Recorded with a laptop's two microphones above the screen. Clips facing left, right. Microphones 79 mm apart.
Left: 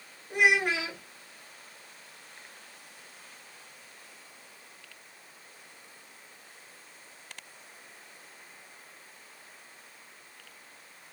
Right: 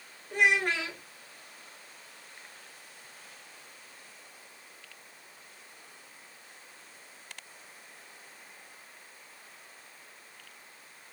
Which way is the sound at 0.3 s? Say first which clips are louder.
Left 1 dB; 10° left (ahead or behind).